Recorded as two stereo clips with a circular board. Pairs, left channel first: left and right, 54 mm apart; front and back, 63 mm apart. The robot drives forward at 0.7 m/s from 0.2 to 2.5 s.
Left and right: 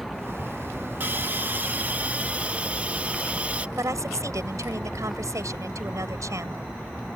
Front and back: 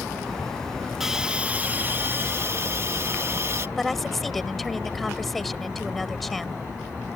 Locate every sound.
1.0 s a hiss: 100° right; by 3.7 s 150° right
3.8 s a woman speaking: 85° right